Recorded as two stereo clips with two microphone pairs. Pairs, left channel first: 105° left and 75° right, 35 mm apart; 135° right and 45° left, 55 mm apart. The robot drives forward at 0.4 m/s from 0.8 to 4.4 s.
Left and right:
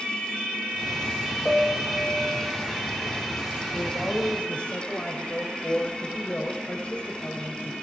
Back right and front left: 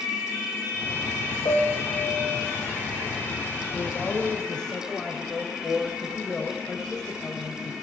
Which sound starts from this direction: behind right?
A piano, at 1.4 s.